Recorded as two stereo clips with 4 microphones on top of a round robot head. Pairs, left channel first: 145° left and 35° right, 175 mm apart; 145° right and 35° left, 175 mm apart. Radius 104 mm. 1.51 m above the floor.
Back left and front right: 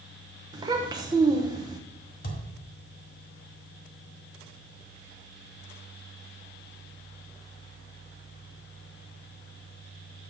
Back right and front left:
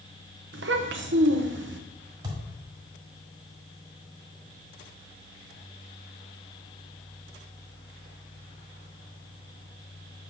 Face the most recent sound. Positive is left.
turn(degrees=105)